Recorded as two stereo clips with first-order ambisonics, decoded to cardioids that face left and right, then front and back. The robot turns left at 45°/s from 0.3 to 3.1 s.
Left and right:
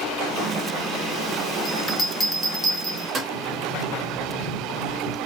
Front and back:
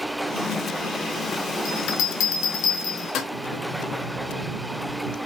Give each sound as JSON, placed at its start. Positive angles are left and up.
{"t": 1.6, "sound": "a bell", "azimuth_deg": 40, "distance_m": 0.7}
{"t": 3.3, "sound": "a sliding door", "azimuth_deg": -155, "distance_m": 2.0}